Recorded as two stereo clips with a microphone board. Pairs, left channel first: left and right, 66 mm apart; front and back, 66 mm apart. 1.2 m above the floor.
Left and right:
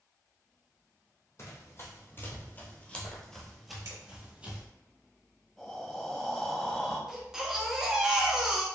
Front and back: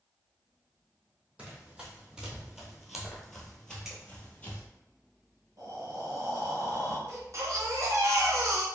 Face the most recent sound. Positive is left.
turn(degrees=-170)